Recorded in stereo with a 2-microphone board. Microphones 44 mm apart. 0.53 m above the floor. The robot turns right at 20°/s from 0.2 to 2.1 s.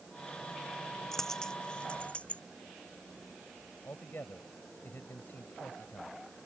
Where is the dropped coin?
5° left (ahead or behind); by 2.4 s 25° left (ahead or behind).